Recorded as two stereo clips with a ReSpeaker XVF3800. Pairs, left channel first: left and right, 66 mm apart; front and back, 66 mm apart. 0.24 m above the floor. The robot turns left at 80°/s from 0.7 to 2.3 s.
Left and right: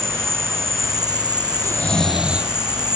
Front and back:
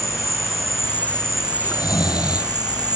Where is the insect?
40° right; by 3.0 s 170° right.